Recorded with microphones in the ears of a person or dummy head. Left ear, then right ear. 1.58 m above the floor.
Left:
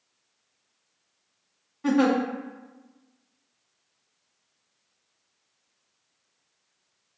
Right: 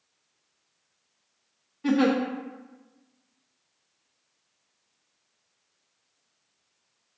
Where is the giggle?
5° left (ahead or behind), 0.6 m.